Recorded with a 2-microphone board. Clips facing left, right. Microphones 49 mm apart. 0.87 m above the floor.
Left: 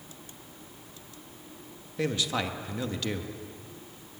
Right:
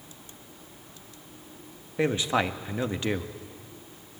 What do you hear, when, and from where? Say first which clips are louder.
2.0 s a man speaking: right 4 dB; 25° right (ahead or behind), 1.1 m